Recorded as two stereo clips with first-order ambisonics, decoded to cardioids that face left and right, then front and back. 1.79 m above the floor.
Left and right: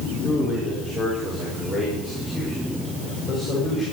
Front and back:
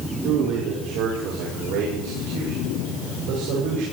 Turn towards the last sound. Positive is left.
turn(degrees=-175)